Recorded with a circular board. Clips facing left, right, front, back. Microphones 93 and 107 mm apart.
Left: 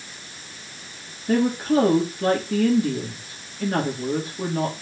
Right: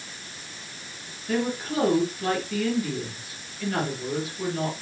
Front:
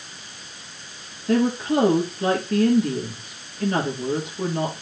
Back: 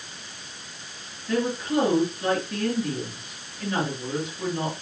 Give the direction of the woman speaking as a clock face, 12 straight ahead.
11 o'clock.